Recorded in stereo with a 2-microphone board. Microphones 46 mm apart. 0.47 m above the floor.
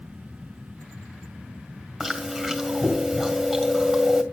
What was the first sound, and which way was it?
Chewing, 5° left (ahead or behind).